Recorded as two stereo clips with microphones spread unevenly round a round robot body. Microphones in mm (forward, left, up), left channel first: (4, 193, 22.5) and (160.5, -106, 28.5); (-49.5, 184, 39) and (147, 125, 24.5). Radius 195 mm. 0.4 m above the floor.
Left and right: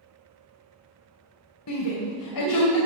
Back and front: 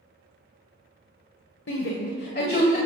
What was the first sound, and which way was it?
A shout, 155° left.